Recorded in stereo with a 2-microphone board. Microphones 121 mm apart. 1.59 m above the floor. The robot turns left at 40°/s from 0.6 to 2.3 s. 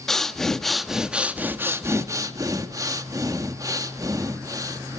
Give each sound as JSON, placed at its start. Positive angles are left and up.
{"t": 0.1, "sound": "breathing", "azimuth_deg": 5, "distance_m": 1.1}